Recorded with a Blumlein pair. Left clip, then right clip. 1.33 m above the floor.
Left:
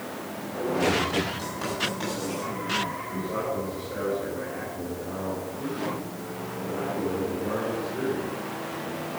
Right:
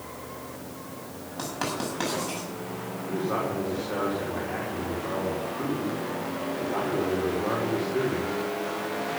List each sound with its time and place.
1.4 s writing: 65° right, 8 m
3.1 s a man speaking: 50° right, 4.5 m